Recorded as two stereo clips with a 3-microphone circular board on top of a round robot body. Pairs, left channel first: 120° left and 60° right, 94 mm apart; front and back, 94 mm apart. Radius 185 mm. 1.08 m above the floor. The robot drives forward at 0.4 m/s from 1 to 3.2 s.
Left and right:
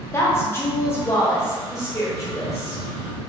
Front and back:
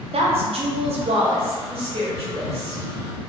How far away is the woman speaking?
About 0.5 m.